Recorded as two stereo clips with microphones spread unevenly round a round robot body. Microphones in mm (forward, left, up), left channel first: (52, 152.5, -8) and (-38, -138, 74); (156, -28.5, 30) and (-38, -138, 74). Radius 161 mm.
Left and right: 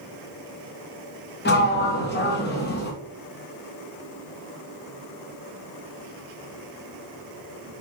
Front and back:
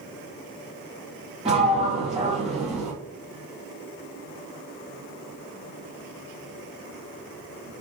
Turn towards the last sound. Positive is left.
turn(degrees=135)